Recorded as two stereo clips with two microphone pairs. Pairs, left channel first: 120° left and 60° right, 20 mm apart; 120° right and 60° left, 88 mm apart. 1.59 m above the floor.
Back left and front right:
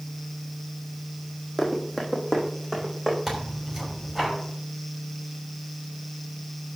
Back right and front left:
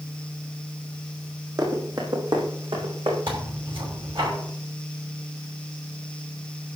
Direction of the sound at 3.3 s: 30° left.